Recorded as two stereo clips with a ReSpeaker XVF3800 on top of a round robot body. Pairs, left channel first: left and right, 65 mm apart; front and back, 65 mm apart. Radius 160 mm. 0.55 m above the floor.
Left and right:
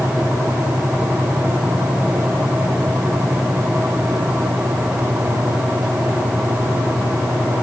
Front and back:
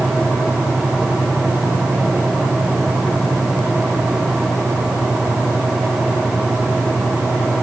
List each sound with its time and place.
Only background noise.